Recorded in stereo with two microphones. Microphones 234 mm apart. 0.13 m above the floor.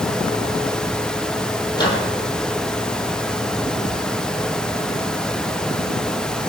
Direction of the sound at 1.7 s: 20° left (ahead or behind).